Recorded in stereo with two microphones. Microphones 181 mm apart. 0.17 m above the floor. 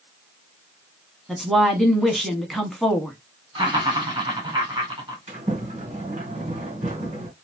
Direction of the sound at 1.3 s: Centre (ahead or behind).